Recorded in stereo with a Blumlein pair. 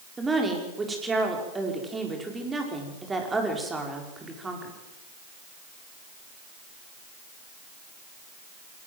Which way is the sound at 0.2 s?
10° right.